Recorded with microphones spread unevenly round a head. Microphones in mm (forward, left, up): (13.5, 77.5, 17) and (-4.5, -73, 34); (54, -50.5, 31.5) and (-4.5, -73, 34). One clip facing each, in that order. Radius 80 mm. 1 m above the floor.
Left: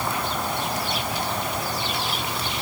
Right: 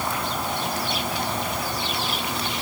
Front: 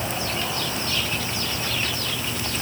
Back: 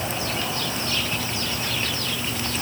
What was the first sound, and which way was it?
Only background noise.